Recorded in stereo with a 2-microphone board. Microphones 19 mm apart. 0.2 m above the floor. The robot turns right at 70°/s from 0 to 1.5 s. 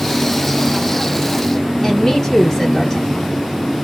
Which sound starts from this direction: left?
A woman speaking, at 1.8 s.